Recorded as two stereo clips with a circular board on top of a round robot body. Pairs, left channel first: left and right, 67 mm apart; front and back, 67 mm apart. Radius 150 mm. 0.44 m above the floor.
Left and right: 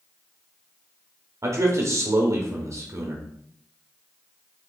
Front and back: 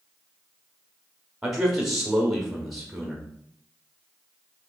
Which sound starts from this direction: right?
A man speaking, at 1.4 s.